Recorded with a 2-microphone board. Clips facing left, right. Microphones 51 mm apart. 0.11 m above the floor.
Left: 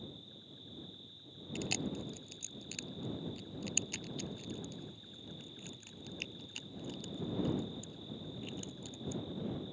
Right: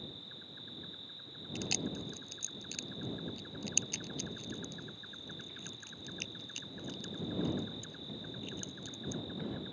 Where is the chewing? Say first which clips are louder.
Even; 10° left (ahead or behind).